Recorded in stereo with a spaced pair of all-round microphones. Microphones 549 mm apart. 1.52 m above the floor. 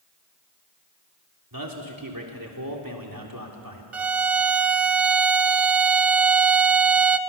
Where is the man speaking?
40° right (ahead or behind), 3.5 m.